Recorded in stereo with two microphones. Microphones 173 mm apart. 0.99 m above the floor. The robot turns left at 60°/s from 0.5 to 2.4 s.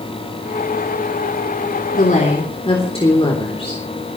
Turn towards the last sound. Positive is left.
turn(degrees=35)  # may be behind; listen again after turning